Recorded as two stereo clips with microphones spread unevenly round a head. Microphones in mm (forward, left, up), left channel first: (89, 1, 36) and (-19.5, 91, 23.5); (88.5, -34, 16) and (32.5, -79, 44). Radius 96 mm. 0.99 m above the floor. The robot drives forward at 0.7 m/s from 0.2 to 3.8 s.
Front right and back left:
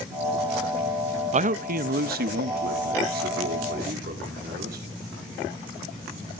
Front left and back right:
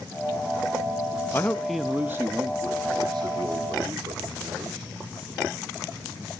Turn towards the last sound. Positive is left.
turn(degrees=165)